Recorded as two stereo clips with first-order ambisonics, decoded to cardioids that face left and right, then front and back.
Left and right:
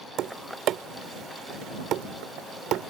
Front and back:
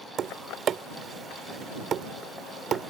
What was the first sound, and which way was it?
Tapping, 125° right.